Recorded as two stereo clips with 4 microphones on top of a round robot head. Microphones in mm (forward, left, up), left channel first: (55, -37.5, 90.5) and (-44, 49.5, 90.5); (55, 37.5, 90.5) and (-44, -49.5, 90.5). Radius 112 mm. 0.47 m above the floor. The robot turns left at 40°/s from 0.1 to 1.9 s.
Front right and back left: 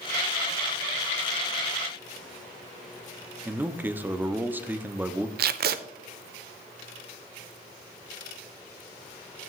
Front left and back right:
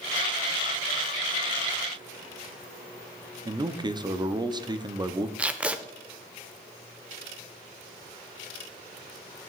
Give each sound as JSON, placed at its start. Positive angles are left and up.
{"t": 3.5, "sound": "a man speaking", "azimuth_deg": -155, "distance_m": 0.8}
{"t": 5.4, "sound": "tape being pulled", "azimuth_deg": 140, "distance_m": 0.5}